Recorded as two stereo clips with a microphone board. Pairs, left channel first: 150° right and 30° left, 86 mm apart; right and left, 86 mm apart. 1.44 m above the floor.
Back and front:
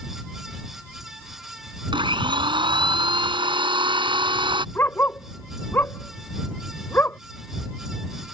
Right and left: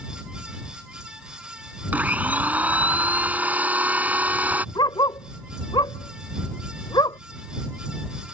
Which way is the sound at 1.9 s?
20° left.